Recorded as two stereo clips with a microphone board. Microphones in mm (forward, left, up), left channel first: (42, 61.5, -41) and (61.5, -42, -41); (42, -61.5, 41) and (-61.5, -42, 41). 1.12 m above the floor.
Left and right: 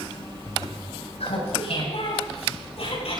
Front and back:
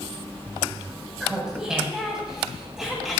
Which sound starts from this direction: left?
Laughter, at 1.2 s.